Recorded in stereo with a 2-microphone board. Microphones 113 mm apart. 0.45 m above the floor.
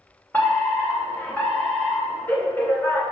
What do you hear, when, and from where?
0.3 s a fire alarm: 15° left (ahead or behind), 2.5 m